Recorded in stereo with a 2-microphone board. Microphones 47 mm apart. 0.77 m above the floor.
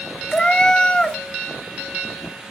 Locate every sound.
0.3 s a cat meowing: 20° left (ahead or behind), 0.7 m